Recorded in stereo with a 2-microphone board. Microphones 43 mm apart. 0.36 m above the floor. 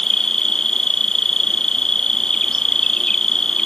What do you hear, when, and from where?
0.0 s an insect: 15° left (ahead or behind)